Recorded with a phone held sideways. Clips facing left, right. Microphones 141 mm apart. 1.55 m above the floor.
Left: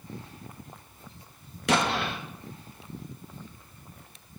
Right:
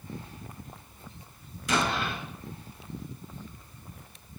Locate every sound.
1.7 s an explosion: 75° left (ahead or behind), 1.5 m